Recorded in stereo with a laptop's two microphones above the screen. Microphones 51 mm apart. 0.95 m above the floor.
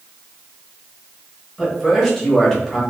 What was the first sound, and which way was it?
A man speaking, 5° left (ahead or behind).